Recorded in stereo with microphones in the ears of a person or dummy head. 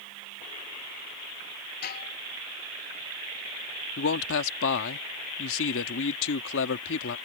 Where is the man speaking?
65° left (ahead or behind).